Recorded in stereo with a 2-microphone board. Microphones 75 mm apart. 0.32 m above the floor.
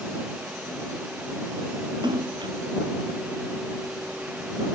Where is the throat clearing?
No throat clearing in this recording.